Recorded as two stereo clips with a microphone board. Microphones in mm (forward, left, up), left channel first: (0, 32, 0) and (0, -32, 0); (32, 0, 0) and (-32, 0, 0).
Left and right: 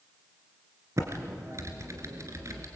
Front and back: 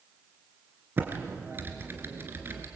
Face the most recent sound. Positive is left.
turn(degrees=-125)